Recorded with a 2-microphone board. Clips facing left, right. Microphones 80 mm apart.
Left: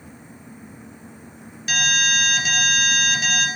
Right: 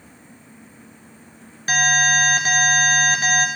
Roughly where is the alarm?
Right.